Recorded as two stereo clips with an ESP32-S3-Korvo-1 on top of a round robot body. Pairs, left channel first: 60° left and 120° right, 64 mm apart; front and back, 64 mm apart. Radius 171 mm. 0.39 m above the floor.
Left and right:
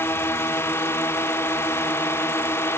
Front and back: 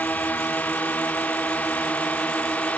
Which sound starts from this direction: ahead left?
A drone, at 0.0 s.